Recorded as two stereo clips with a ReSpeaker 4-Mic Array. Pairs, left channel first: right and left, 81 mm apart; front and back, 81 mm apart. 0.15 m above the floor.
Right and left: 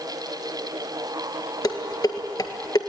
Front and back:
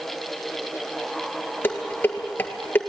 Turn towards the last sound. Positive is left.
turn(degrees=-60)